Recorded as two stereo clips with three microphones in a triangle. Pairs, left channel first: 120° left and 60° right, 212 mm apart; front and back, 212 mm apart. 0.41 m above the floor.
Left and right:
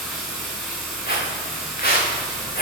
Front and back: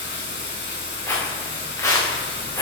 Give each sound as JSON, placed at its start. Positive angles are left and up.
{"t": 0.0, "sound": "running water", "azimuth_deg": 35, "distance_m": 4.5}
{"t": 1.1, "sound": "footsteps", "azimuth_deg": 80, "distance_m": 4.0}